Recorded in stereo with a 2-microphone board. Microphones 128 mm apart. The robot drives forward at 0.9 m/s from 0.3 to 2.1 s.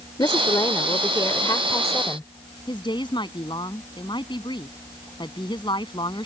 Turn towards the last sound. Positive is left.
turn(degrees=35)  # may be behind; listen again after turning